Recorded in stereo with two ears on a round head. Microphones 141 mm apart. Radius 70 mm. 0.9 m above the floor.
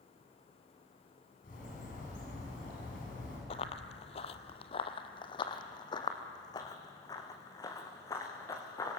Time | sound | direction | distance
1.4 | a bird | 55° left (ahead or behind) | 8 m
3.5 | running footsteps | 40° left (ahead or behind) | 1.1 m